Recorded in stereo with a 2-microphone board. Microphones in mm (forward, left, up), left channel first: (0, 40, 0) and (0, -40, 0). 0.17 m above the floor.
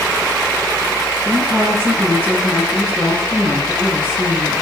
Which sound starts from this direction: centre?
A woman speaking, at 1.2 s.